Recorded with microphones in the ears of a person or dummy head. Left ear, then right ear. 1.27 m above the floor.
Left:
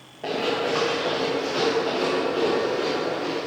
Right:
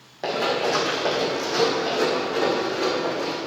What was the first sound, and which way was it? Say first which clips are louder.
Running footsteps: right 2 dB; 40° right (ahead or behind).